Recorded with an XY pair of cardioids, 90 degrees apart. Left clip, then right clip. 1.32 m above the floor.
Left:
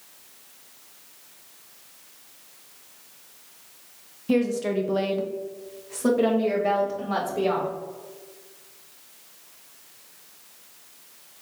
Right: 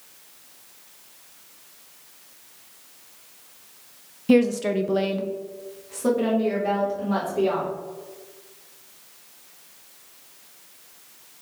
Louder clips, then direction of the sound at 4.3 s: Right 4 dB; 45° right.